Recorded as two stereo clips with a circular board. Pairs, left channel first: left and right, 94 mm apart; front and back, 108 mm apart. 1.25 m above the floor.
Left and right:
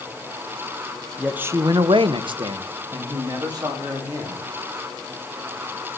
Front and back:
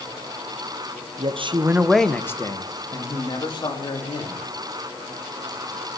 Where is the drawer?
I don't hear a drawer.